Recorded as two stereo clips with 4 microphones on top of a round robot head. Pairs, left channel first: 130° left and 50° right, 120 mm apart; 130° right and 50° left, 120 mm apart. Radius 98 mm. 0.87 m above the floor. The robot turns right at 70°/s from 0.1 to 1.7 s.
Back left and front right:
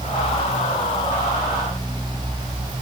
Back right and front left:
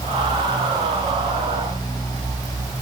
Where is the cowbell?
I don't hear a cowbell.